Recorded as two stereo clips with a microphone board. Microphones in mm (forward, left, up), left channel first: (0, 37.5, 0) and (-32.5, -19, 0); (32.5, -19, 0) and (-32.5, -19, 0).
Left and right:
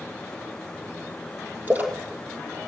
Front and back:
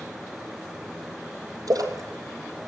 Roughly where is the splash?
Behind.